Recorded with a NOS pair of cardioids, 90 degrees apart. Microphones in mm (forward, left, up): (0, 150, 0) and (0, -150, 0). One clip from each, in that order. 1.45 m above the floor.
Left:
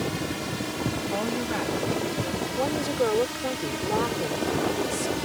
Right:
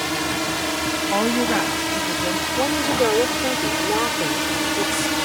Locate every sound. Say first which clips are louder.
0.0 s a drone: right 7 dB; 70° right; by 5.2 s 75° right
1.1 s a woman speaking: right 10 dB; 55° right
2.6 s a woman speaking: right 5 dB; 30° right